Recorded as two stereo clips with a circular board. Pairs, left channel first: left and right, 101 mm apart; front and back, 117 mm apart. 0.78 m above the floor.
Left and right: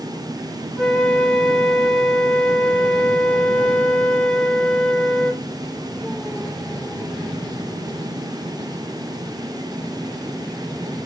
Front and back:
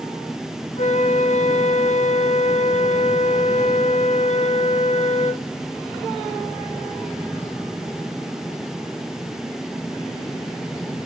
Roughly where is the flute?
Ahead.